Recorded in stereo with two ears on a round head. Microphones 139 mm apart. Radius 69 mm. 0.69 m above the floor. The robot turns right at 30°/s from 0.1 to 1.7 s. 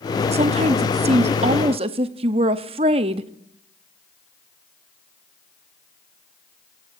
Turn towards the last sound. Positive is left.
turn(degrees=-65)